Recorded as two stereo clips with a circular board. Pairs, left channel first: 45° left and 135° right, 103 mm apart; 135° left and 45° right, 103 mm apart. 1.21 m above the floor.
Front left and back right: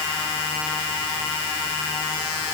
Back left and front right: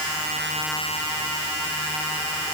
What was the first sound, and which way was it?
Only background noise.